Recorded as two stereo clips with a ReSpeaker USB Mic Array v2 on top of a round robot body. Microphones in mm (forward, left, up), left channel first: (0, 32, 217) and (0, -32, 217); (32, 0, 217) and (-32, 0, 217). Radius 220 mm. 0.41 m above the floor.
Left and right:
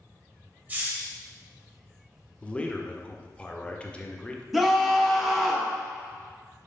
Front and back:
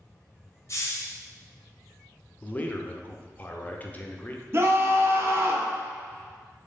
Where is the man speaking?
35° left, 0.8 m.